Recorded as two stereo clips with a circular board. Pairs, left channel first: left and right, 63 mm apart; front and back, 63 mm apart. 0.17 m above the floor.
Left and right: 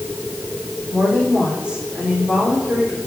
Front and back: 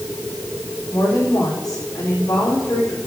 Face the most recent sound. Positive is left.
turn(degrees=-20)